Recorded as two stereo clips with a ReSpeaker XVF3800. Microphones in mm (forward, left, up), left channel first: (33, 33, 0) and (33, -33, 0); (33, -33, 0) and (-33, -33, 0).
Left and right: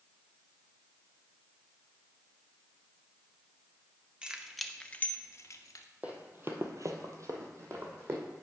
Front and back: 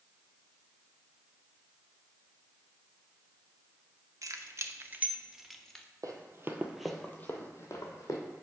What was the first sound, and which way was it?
Keys jangling, 160° right.